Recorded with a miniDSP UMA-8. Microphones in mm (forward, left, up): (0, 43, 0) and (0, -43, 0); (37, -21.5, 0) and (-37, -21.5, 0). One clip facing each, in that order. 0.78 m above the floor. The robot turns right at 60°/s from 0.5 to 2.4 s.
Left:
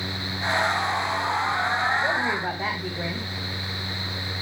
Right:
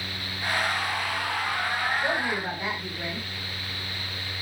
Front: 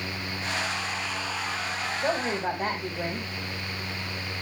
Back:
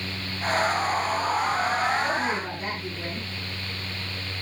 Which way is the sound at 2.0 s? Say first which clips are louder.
Left 2 dB, back 1 dB; 5° left.